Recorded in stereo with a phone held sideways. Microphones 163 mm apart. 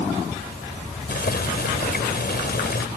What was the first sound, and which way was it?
Boiling, 80° left.